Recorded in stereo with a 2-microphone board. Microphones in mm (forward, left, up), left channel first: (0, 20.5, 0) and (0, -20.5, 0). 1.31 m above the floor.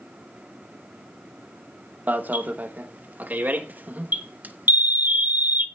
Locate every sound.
2.1 s an alarm: 45° right (ahead or behind), 1.1 m